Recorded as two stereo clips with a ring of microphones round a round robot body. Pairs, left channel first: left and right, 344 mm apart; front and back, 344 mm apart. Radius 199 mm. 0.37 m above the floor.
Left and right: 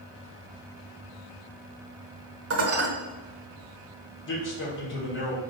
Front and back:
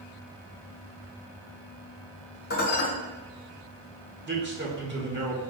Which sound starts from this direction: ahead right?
Dishes clattering, at 2.5 s.